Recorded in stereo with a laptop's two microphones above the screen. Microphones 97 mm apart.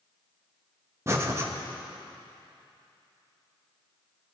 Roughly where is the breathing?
Right.